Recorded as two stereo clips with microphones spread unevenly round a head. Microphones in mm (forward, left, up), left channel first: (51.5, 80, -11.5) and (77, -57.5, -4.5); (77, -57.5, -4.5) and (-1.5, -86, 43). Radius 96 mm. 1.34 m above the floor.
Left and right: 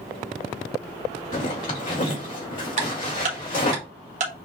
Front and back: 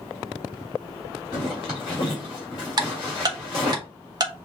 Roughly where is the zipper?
Left.